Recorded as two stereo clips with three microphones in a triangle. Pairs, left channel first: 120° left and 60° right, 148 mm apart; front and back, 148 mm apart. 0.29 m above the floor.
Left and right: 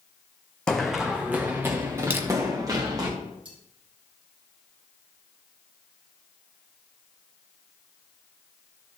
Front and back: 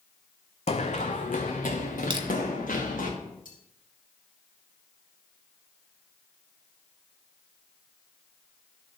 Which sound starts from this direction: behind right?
Crushing, at 2.1 s.